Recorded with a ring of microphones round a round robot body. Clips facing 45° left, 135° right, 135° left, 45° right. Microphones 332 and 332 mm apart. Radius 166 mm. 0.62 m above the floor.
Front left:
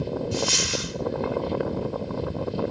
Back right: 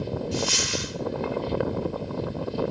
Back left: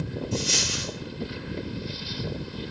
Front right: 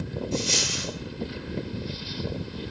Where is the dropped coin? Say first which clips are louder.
Front left 1 dB, front right 1 dB; 65° left, 4.5 m.